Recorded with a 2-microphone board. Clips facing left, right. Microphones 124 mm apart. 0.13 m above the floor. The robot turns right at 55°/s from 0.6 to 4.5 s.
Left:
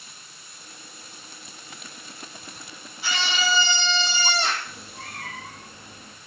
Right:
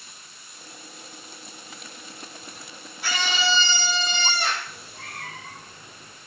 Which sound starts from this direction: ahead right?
A scream, at 3.0 s.